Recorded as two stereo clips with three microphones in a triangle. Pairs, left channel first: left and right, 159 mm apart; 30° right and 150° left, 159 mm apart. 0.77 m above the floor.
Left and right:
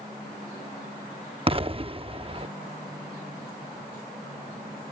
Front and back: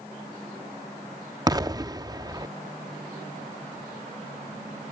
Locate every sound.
1.5 s an explosion: 140° right